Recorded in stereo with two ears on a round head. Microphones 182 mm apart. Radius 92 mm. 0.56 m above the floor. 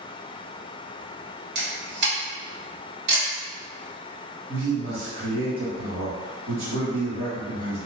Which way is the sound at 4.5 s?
60° right (ahead or behind).